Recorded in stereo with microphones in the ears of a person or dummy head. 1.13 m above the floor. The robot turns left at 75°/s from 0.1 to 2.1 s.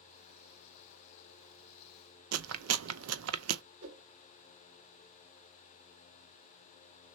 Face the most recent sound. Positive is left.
turn(degrees=-45)  # may be behind; listen again after turning